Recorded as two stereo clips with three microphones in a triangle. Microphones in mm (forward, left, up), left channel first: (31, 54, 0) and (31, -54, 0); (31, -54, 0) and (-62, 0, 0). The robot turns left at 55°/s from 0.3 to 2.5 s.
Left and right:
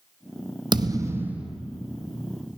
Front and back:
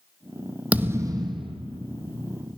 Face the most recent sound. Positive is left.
turn(degrees=130)